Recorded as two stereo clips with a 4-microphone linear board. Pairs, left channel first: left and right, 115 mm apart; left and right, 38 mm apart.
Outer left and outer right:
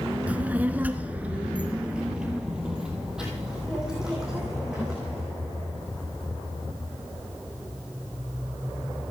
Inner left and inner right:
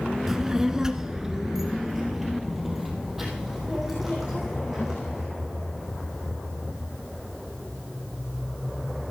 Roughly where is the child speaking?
Centre.